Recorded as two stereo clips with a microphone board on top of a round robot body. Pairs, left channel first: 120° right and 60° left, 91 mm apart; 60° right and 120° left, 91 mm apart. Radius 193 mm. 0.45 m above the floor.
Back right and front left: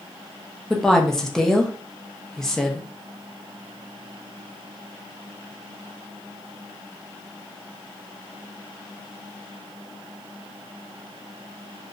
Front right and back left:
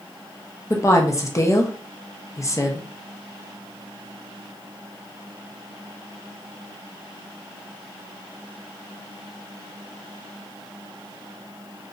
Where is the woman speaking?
40° right, 0.8 m.